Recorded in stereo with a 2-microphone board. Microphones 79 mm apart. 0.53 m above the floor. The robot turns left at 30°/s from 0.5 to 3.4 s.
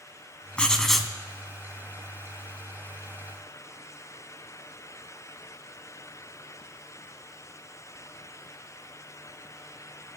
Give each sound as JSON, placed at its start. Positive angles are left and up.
{"t": 0.6, "sound": "writing", "side_deg": 15, "distance_m": 0.9}